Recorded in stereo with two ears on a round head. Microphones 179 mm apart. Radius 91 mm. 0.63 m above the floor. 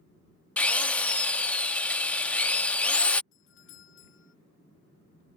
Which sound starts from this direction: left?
A doorbell, at 3.3 s.